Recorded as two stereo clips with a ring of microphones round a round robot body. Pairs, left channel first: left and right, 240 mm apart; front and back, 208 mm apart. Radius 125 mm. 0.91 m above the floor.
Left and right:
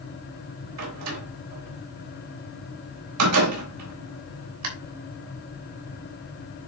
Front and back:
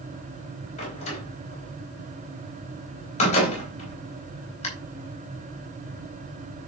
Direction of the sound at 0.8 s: 65° right.